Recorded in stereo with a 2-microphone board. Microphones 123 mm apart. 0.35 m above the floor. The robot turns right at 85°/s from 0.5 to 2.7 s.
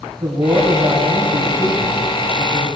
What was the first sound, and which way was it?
A man speaking, 70° right.